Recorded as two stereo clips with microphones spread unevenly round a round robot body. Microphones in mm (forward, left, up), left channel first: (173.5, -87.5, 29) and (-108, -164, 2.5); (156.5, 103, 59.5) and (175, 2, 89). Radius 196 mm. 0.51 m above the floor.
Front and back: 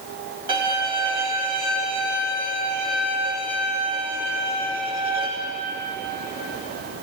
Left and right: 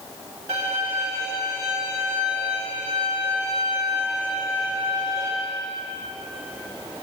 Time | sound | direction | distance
0.5 | a violin | 155° right | 7 m